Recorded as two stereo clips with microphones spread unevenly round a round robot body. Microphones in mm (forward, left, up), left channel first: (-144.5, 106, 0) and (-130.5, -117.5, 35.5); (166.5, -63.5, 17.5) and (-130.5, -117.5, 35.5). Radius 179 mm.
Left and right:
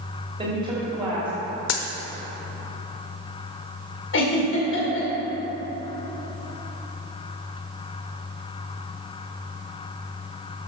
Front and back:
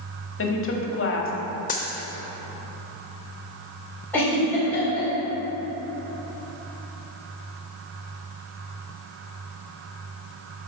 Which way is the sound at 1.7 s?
80° left.